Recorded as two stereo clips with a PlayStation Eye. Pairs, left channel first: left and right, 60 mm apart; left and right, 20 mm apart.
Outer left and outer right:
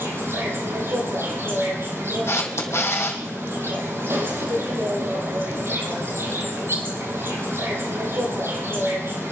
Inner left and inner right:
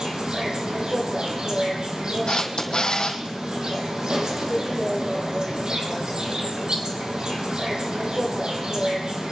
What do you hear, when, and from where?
0.0 s an insect: 45° right (ahead or behind), 4.5 m
2.3 s a camera shutter: 45° left (ahead or behind), 2.5 m